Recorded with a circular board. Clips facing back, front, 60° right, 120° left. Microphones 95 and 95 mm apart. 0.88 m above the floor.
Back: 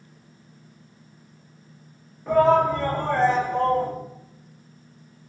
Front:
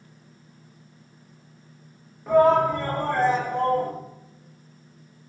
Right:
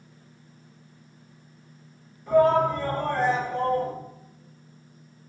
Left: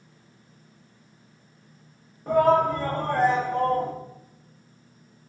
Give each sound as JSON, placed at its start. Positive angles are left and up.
{"t": 2.3, "sound": "a shout", "azimuth_deg": 85, "distance_m": 1.1}